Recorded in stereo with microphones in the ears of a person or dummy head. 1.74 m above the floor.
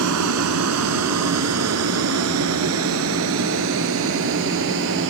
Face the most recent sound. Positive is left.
turn(degrees=-65)  # may be behind; listen again after turning